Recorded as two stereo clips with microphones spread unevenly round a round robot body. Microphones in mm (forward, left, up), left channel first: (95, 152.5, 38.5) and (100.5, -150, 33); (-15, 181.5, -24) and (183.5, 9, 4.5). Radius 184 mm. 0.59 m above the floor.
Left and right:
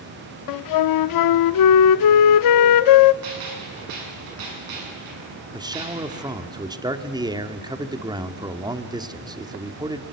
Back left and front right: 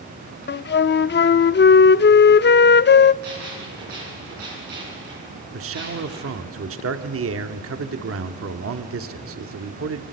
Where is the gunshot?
110° right, 7 m.